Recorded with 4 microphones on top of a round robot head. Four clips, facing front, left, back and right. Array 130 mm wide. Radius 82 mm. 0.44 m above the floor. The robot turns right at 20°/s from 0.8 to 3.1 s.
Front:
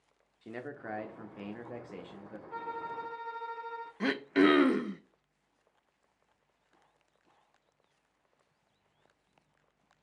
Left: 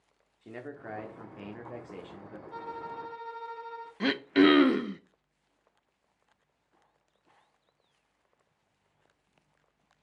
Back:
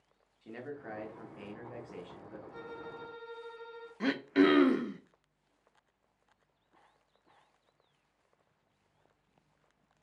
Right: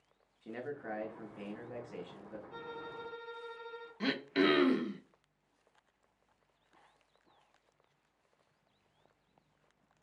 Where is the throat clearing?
70° left, 0.5 m.